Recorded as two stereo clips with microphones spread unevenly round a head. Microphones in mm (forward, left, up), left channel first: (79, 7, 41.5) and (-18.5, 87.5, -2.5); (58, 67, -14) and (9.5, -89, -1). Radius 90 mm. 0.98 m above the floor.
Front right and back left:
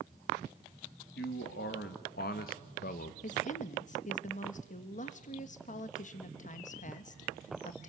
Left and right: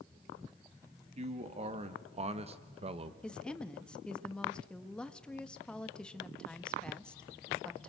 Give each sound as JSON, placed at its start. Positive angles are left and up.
{"t": 1.1, "sound": "a man speaking", "azimuth_deg": -55, "distance_m": 2.0}
{"t": 3.2, "sound": "a woman speaking", "azimuth_deg": -10, "distance_m": 1.5}